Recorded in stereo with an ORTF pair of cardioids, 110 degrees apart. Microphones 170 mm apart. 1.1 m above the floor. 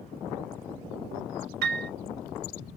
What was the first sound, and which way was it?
A piano, 70° right.